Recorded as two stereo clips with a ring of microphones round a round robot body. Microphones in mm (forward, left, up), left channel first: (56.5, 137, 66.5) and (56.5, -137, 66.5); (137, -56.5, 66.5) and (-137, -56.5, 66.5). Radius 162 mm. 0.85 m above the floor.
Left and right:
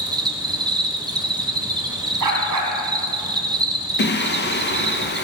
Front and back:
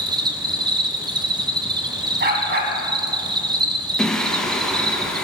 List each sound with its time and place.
0.0 s an insect: 135° right, 1.1 m
2.2 s a dog barking: 125° right, 2 m
4.0 s singing: 85° left, 1.0 m